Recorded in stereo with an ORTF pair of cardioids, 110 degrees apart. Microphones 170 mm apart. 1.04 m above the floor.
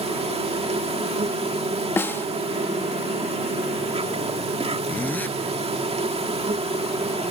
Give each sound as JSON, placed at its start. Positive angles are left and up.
{"t": 0.0, "sound": "an insect", "azimuth_deg": -35}
{"t": 2.0, "sound": "a snare drum", "azimuth_deg": 15}
{"t": 4.9, "sound": "a zipper", "azimuth_deg": 10}